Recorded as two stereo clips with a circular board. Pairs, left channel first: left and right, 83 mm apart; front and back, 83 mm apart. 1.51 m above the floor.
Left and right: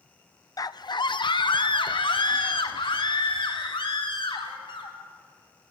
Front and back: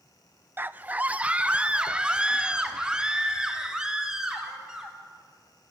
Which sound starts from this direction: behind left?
A scream, at 0.6 s.